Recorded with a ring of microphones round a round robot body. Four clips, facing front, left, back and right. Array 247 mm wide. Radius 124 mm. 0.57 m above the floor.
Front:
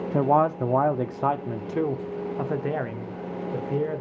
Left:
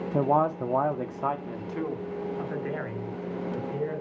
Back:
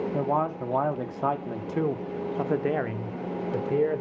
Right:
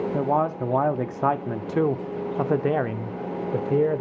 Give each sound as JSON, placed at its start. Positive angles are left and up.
{"t": 0.1, "sound": "a man speaking", "azimuth_deg": 5, "distance_m": 0.9}